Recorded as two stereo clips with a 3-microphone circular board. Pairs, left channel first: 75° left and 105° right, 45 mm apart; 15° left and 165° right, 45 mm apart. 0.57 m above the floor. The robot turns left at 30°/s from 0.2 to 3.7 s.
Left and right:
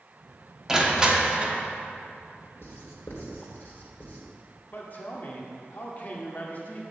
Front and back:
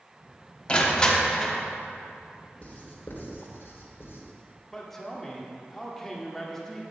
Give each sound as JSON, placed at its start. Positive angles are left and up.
{"t": 0.7, "sound": "crushing", "azimuth_deg": -35, "distance_m": 1.1}
{"t": 2.6, "sound": "writing", "azimuth_deg": 70, "distance_m": 1.8}
{"t": 4.7, "sound": "a man speaking", "azimuth_deg": 95, "distance_m": 1.3}